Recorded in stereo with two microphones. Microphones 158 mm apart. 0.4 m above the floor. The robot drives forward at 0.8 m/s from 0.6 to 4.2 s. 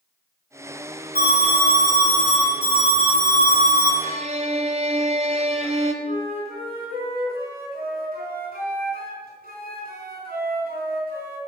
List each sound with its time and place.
1.1 s an alarm: 70° right (ahead or behind), 6.5 m; by 3.9 s 60° right (ahead or behind), 7 m
4.0 s a violin: 50° right (ahead or behind), 1.1 m; by 5.9 s 45° right (ahead or behind), 1.2 m
6.0 s a flute: 70° right (ahead or behind), 4 m